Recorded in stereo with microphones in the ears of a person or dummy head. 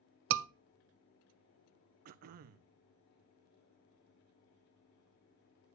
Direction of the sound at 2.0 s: 50° right (ahead or behind).